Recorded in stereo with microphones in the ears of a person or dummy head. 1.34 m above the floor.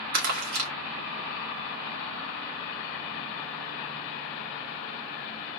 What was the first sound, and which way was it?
Crumpling, 50° right (ahead or behind).